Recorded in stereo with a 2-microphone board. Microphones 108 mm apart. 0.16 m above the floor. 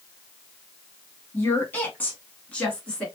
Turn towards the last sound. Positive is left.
turn(degrees=10)  # may be behind; listen again after turning